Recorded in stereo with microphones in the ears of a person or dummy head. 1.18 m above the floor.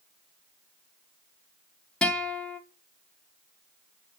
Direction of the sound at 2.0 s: 5° left (ahead or behind).